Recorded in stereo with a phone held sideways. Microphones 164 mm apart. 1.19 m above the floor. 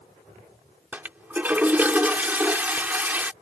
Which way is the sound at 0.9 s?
10° right (ahead or behind).